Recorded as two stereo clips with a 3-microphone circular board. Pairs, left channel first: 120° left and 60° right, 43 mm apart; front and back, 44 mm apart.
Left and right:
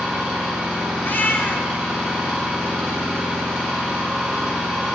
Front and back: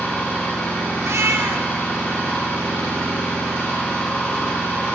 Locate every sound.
0.0 s an engine running: 25° left, 2.5 m
1.0 s a cat meowing: 165° left, 0.5 m